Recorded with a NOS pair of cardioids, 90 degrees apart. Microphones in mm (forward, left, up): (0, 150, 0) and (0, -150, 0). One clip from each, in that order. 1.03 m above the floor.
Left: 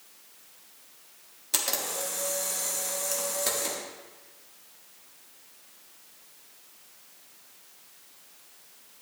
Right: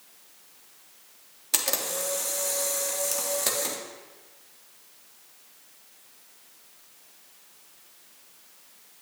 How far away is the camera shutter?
About 1.4 m.